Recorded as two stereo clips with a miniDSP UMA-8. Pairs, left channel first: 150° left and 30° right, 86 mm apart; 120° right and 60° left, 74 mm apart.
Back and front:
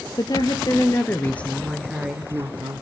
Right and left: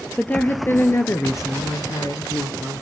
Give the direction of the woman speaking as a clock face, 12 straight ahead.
6 o'clock.